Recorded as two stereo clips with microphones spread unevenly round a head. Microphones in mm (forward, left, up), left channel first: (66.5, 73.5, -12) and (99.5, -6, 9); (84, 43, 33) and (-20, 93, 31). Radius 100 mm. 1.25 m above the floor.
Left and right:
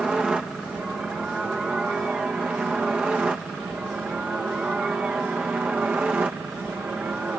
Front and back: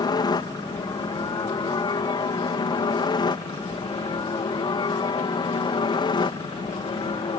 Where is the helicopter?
15° left; by 7.4 s 5° left.